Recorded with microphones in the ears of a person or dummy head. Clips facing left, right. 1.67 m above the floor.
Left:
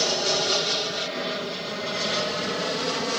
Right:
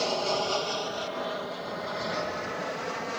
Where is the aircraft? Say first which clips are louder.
Left 2 dB; 20° left (ahead or behind); by 3.2 s 55° left (ahead or behind).